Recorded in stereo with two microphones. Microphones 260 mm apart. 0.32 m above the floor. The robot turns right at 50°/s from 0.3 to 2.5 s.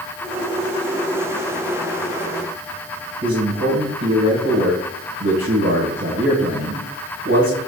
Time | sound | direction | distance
3.2 | a man speaking | 50° right (ahead or behind) | 2 m